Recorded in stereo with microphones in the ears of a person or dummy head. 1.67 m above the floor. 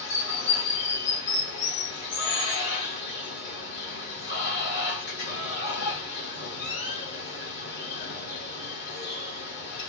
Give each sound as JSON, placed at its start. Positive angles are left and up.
{"t": 0.0, "sound": "running water", "side_deg": 65, "distance_m": 1.5}